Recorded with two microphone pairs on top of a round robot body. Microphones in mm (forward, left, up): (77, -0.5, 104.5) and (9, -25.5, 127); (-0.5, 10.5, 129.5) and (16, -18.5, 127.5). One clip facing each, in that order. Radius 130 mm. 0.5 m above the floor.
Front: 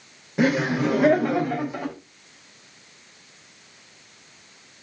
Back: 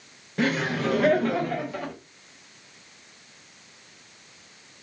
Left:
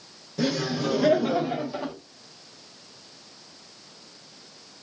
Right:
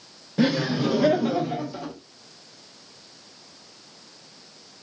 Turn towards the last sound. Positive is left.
turn(degrees=70)